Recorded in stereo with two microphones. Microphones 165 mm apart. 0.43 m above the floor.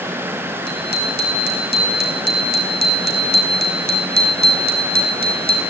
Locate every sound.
0.7 s a bicycle bell: 80° right, 6 m; by 5.6 s 70° right (ahead or behind), 4 m